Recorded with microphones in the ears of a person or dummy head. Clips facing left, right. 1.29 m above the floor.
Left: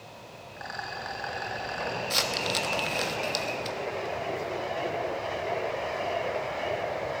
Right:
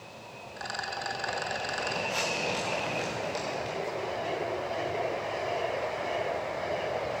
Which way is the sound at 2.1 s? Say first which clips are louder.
Even; 55° left (ahead or behind).